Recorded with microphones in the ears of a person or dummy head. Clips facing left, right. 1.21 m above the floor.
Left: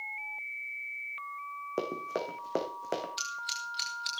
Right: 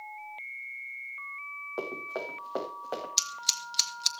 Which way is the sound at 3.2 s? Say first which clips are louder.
Even; 60° right (ahead or behind).